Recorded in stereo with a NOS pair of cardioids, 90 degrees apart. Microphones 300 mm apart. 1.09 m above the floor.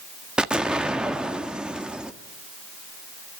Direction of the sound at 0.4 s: 5° right.